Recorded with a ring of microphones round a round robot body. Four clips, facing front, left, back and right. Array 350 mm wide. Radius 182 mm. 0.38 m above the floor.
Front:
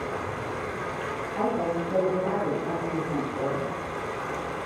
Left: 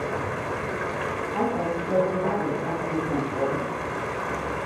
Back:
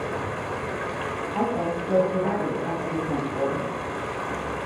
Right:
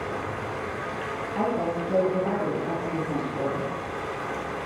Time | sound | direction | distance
0.0 | running water | 115° left | 1.6 m
1.3 | a woman speaking | 145° left | 4 m